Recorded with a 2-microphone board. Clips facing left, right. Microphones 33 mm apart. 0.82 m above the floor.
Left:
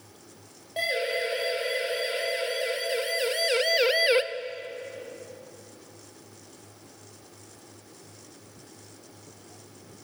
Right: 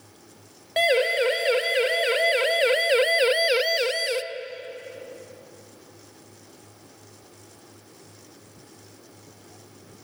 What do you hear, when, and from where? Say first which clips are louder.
0.8 s a siren: right 7 dB; 80° right, 3.5 m; by 4.2 s 35° left (ahead or behind), 1.1 m